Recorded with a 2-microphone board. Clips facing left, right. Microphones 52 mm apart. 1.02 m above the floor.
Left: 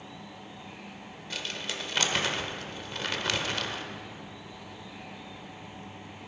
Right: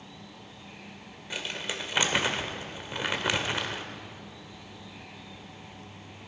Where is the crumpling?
15° right (ahead or behind), 1.3 m.